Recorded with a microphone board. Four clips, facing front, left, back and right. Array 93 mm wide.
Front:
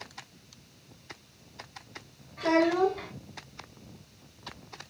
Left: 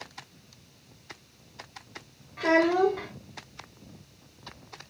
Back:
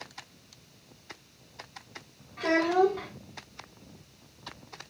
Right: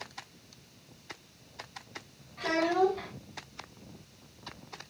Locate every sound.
2.4 s a child speaking: 105° left, 2.5 m